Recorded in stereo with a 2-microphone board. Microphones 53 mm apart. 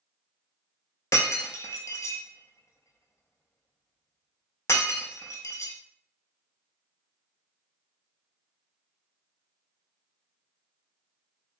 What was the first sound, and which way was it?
Breaking glass, 75° left (ahead or behind).